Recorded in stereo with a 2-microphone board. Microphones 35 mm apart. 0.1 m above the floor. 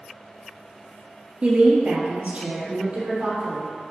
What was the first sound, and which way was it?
A woman speaking, 40° right (ahead or behind).